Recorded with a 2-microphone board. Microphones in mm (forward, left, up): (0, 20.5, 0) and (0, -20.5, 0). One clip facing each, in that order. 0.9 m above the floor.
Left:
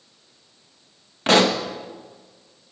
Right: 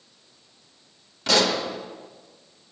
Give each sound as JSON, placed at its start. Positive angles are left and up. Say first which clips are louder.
{"t": 1.3, "sound": "a pop", "louder": "left 4 dB", "side_deg": 40, "distance_m": 1.1}